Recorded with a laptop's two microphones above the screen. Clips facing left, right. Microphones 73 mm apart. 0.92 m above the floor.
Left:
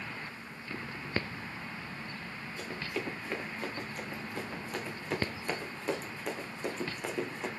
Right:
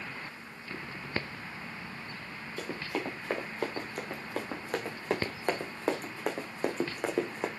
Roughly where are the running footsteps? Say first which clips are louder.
Right 3 dB; right.